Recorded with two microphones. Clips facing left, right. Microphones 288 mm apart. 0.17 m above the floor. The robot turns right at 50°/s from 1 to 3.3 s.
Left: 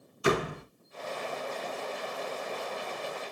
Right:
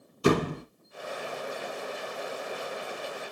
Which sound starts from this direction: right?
A door slam, at 0.2 s.